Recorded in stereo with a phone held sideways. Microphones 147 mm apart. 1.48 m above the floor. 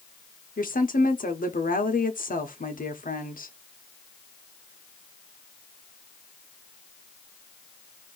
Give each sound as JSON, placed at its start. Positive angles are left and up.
{"t": 0.6, "sound": "a woman speaking", "side_deg": 70, "distance_m": 0.9}